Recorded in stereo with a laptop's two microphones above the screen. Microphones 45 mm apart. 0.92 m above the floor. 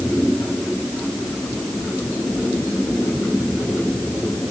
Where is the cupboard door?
No cupboard door in this recording.